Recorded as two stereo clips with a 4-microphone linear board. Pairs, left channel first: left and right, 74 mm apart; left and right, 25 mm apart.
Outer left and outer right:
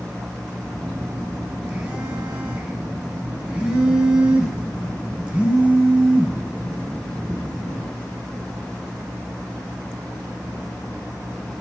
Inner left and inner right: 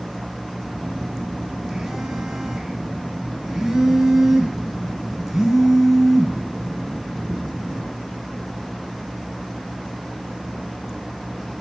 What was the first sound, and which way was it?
A phone buzzing, 15° right (ahead or behind).